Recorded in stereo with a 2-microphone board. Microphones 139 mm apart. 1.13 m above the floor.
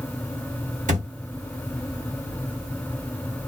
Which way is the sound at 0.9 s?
70° right (ahead or behind).